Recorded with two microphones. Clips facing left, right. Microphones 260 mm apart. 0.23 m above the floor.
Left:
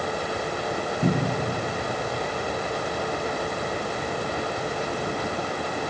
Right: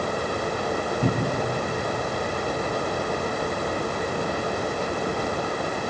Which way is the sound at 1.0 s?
Centre (ahead or behind).